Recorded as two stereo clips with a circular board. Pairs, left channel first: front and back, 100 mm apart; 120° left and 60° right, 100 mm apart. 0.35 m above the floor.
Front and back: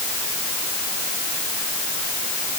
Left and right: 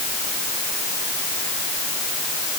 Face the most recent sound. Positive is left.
No sound to turn to.